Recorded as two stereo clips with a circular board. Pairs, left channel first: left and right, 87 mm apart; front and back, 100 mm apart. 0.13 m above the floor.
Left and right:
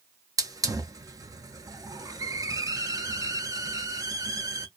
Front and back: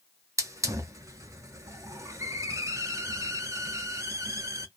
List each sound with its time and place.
0.4 s a hiss: 125° right, 0.5 m